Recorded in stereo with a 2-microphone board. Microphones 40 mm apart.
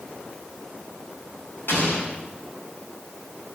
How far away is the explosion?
About 4.5 m.